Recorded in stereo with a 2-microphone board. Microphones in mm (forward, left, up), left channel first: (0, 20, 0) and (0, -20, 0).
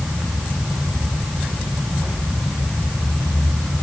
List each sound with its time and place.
Only background noise.